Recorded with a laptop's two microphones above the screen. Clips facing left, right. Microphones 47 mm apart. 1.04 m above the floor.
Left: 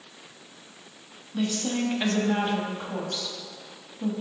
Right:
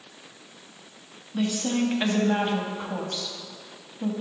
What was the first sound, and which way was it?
A woman speaking, 10° right (ahead or behind).